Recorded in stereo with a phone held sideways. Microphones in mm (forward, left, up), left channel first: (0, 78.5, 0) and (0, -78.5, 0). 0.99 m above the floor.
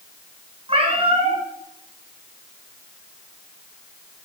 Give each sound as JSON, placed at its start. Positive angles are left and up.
{"t": 0.7, "sound": "a cat meowing", "side_deg": -40, "distance_m": 3.5}